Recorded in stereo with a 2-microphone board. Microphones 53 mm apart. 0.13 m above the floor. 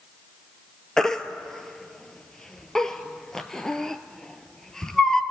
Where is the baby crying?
10° left (ahead or behind), 0.8 m.